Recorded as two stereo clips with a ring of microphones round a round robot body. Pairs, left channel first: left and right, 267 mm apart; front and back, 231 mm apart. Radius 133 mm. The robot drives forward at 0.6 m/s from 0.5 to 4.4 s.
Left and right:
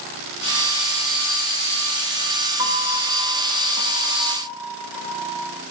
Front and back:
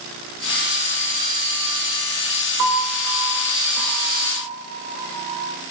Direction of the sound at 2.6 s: 165° right.